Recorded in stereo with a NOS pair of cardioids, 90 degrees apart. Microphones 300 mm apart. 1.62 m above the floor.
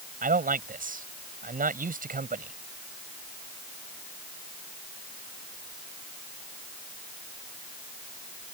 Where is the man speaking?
30° right.